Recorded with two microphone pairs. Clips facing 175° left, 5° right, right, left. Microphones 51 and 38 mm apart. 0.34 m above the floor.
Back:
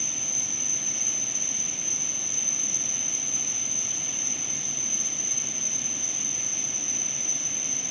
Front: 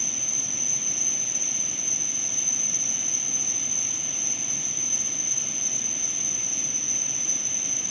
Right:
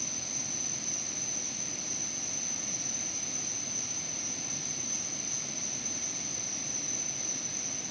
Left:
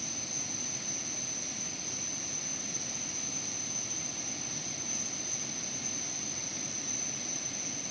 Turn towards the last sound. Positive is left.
turn(degrees=25)